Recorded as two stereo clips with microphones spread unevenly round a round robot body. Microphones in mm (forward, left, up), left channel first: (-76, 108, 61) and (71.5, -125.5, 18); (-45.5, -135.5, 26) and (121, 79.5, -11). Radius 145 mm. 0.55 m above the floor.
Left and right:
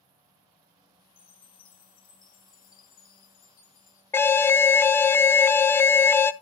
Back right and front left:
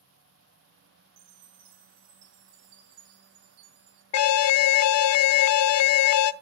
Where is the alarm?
150° right, 0.5 m.